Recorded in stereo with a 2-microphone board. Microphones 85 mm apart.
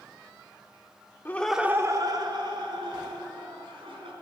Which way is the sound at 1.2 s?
25° left (ahead or behind).